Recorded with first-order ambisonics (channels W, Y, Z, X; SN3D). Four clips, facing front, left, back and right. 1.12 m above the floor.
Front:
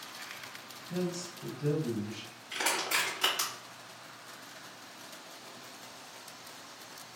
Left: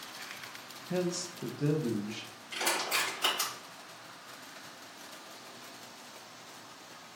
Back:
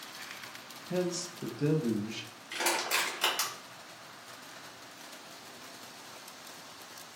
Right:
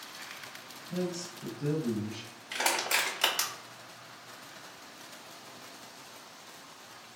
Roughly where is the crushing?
Right.